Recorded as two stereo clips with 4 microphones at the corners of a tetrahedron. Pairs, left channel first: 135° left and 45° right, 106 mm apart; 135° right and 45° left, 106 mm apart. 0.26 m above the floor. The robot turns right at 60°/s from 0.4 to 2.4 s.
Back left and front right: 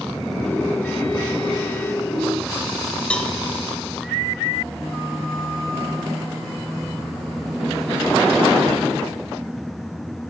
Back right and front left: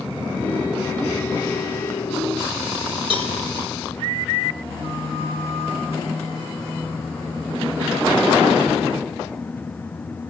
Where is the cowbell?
60° left, 0.6 m.